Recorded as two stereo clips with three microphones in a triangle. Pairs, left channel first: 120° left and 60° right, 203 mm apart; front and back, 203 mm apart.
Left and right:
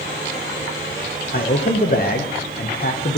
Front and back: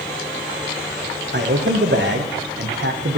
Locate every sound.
1.3 s a man speaking: 160° left, 0.9 m